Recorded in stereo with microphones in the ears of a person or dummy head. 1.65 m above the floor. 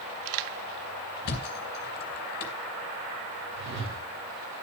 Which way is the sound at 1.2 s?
55° left (ahead or behind).